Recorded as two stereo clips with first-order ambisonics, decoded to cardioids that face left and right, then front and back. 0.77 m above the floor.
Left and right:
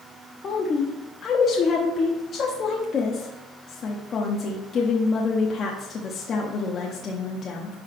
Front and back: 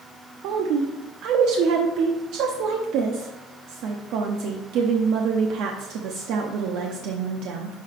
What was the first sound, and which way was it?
A woman speaking, 150° left.